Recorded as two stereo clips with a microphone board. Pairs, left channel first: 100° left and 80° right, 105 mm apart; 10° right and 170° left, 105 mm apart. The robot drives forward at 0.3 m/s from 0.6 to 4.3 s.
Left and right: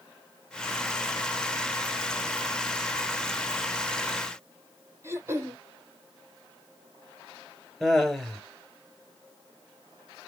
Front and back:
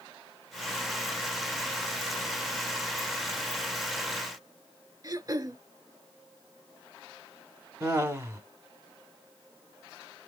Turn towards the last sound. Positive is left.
turn(degrees=-175)